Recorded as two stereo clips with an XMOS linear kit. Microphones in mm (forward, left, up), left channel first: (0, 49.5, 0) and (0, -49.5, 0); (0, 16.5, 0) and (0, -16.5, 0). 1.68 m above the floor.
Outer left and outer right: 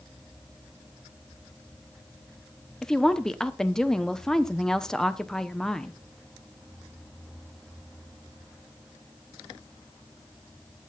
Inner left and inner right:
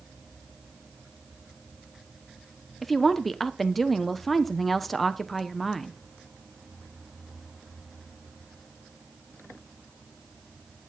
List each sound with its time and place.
2.8 s a woman speaking: 5° left (ahead or behind), 0.9 m